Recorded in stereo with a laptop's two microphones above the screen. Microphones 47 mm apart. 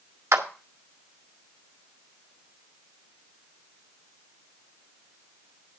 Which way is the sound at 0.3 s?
70° right (ahead or behind).